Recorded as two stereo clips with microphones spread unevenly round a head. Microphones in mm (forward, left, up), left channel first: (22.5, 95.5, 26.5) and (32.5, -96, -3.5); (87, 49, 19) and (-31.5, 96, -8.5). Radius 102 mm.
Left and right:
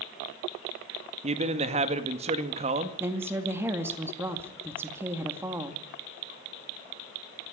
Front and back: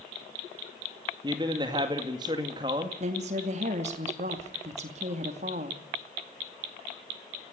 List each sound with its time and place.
1.2 s a man speaking: 140° right, 2.0 m
3.0 s a woman speaking: 165° right, 2 m